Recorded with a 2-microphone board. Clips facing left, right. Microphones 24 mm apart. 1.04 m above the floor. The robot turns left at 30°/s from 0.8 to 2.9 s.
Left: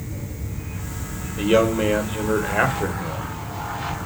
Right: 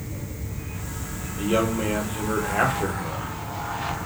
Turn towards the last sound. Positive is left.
turn(degrees=15)